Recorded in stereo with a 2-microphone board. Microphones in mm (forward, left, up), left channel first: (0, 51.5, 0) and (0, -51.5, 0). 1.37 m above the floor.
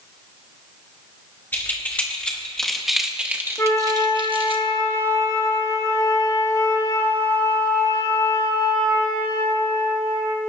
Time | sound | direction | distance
1.5 | keys jangling | 20° left (ahead or behind) | 1.9 m
3.6 | a flute | 30° left (ahead or behind) | 1.4 m